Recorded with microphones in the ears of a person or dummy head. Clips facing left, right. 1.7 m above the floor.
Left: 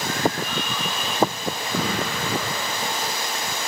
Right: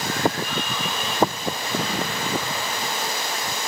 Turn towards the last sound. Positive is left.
turn(degrees=80)